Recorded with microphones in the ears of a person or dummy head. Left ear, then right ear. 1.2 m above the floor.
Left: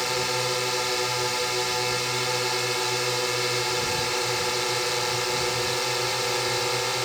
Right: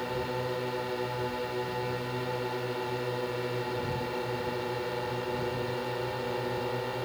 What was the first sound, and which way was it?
A drone, 70° left (ahead or behind).